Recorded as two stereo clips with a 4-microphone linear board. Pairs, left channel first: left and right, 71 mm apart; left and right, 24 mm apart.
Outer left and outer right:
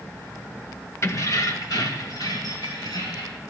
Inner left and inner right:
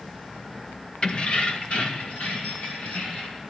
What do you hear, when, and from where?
1.0 s keys jangling: 45° left (ahead or behind), 0.7 m; by 3.4 s 75° left (ahead or behind), 3 m